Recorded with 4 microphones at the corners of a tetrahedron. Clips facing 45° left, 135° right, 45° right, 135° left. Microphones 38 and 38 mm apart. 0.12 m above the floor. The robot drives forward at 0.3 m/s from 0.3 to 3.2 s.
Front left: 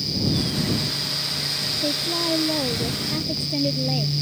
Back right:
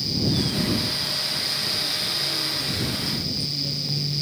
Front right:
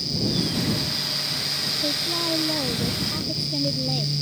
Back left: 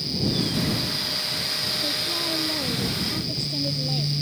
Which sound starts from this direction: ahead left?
A woman speaking, at 1.8 s.